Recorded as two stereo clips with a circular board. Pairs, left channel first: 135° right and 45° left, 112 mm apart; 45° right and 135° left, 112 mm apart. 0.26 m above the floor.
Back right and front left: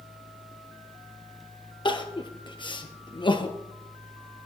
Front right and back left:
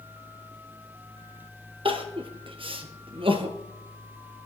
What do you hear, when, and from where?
1.9 s crying: straight behind, 1.8 m